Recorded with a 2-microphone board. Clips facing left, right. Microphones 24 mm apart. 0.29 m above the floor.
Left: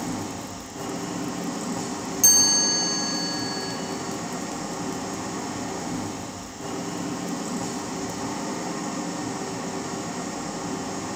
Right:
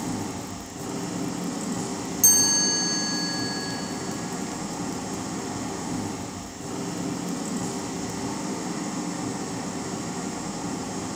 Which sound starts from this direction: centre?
A chime, at 2.2 s.